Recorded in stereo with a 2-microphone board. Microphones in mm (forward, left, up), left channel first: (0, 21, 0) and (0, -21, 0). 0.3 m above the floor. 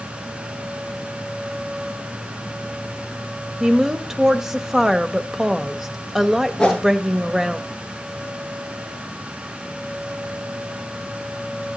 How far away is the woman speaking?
About 0.9 m.